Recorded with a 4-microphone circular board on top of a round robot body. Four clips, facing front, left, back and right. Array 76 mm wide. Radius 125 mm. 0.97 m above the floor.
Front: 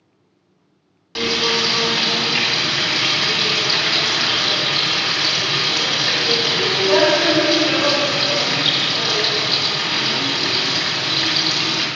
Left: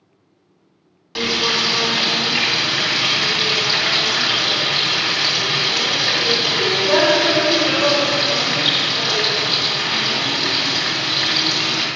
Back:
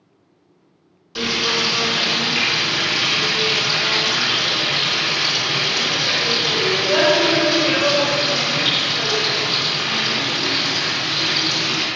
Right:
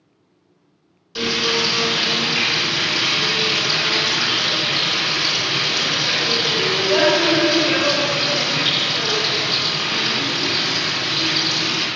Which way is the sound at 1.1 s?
50° left.